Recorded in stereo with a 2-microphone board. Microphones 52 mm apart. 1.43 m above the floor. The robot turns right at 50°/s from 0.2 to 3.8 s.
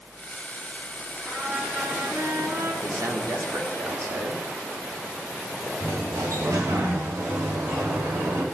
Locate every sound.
1.2 s a trumpet: 175° right, 9.5 m; by 2.7 s 100° right, 9.5 m
2.8 s a man speaking: 105° right, 3 m; by 4.4 s 55° right, 3 m
5.8 s a sliding door: 85° right, 3.5 m